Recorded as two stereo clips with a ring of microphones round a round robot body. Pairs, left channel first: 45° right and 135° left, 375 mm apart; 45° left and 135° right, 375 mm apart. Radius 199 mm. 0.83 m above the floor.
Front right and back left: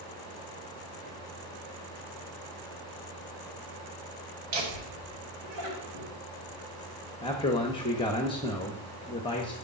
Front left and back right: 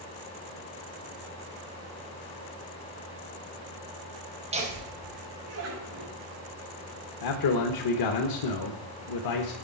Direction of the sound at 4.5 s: 150° left.